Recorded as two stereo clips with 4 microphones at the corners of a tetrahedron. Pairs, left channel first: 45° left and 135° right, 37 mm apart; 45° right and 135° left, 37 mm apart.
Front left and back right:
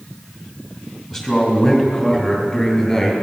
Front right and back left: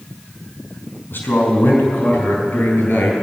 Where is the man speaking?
40° right, 4.5 m; by 3.1 s 35° right, 6 m.